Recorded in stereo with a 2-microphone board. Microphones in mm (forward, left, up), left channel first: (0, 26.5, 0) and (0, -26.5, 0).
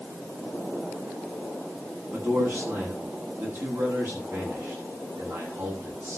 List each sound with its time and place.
2.1 s a man speaking: 60° right (ahead or behind), 9 m